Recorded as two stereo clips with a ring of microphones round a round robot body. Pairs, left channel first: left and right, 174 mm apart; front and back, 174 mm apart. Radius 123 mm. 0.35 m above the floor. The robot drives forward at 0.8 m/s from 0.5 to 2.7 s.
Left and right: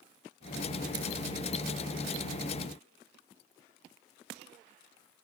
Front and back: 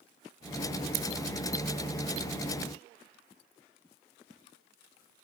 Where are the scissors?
160° right, 2 m.